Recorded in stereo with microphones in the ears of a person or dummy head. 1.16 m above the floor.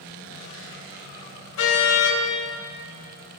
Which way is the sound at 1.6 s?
80° left.